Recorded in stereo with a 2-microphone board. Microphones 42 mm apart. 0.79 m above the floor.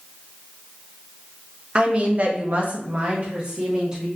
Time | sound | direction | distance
1.8 | a woman speaking | 25° right (ahead or behind) | 0.7 m